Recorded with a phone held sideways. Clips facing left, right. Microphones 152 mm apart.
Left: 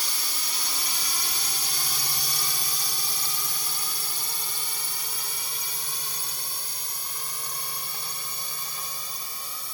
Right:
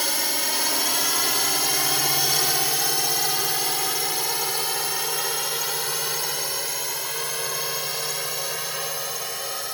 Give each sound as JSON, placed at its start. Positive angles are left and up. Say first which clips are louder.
{"t": 0.0, "sound": "a drone", "louder": "right 10 dB", "side_deg": -75}